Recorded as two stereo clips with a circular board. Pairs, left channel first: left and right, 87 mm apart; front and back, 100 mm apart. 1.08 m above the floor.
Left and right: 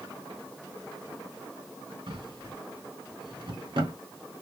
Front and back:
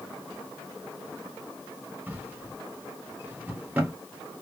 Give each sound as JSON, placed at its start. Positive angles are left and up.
{"t": 2.1, "sound": "a drawer", "azimuth_deg": -105, "distance_m": 1.6}